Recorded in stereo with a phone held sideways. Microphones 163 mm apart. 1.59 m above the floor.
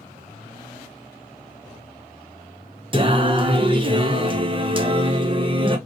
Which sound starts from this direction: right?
Singing, at 2.9 s.